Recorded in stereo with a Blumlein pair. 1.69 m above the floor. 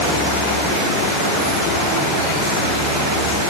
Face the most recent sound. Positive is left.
No sound to turn to.